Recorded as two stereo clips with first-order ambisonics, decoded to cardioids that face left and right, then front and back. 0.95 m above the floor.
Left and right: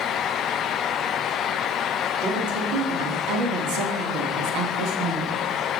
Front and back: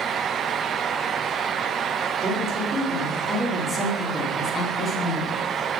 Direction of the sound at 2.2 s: 110° right.